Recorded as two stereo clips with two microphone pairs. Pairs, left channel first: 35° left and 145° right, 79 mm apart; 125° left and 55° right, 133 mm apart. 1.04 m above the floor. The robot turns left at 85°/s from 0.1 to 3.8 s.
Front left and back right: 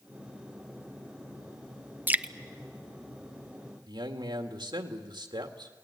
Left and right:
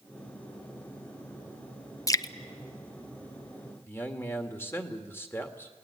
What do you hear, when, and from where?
2.1 s dripping: 165° left, 0.6 m; by 2.3 s 145° left, 0.6 m
3.9 s a man speaking: 165° right, 1.9 m